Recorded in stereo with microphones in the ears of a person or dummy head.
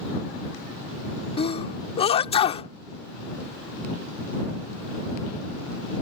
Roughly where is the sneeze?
Left.